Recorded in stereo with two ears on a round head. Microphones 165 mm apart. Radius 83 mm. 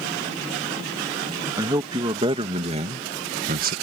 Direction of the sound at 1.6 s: 20° right (ahead or behind).